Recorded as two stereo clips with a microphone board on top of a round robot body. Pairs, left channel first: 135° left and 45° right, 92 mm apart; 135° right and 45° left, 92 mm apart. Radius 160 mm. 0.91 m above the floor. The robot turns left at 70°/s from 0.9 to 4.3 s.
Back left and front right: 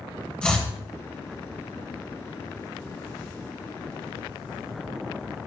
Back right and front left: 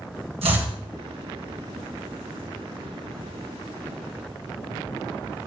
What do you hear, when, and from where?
0.4 s chopping: 55° left, 1.6 m